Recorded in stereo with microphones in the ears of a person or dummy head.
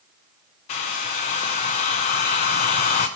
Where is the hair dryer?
40° left (ahead or behind), 0.6 m.